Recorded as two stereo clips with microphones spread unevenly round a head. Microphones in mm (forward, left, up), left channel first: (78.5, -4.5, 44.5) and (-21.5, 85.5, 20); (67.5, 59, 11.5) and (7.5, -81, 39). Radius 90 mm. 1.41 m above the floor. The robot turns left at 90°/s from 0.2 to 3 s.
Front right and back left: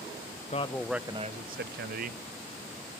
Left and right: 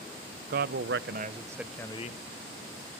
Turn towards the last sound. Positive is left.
turn(degrees=40)